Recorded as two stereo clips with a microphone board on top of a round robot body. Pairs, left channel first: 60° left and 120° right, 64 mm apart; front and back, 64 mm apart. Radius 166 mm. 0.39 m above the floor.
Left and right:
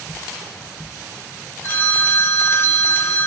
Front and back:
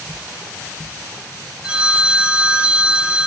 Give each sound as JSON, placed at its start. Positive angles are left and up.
{"t": 1.6, "sound": "a phone ringing", "azimuth_deg": 105, "distance_m": 2.0}